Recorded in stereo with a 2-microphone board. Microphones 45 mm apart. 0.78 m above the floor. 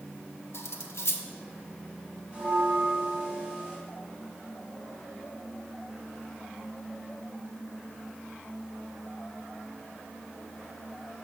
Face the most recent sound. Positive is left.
turn(degrees=-25)  # may be behind; listen again after turning